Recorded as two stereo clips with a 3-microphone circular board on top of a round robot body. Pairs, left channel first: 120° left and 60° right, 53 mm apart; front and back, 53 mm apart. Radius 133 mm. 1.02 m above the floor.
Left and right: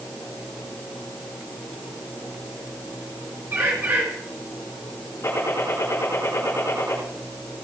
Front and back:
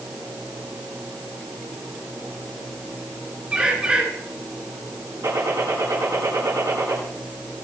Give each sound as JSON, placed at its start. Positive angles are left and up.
{"t": 3.5, "sound": "a bird", "azimuth_deg": -115, "distance_m": 2.5}
{"t": 5.2, "sound": "a gunshot", "azimuth_deg": 155, "distance_m": 8.5}